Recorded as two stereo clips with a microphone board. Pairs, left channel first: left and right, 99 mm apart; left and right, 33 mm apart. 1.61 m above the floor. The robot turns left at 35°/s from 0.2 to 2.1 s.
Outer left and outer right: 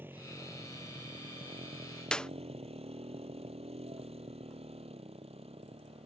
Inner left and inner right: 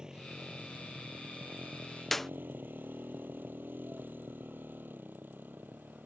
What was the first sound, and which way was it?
A motorcycle, 20° right (ahead or behind).